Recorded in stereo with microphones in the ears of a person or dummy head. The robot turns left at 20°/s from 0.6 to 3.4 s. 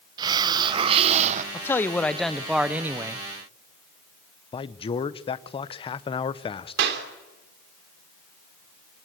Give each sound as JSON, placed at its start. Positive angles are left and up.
{"t": 0.2, "sound": "a hiss", "side_deg": -25, "distance_m": 0.9}
{"t": 1.5, "sound": "a man speaking", "azimuth_deg": 15, "distance_m": 0.8}
{"t": 4.5, "sound": "a man speaking", "side_deg": 25, "distance_m": 0.8}
{"t": 6.8, "sound": "a clap", "side_deg": -60, "distance_m": 3.0}